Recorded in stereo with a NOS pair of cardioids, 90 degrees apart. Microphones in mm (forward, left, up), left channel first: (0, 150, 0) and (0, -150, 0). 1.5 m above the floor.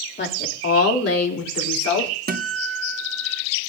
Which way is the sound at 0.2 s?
35° left.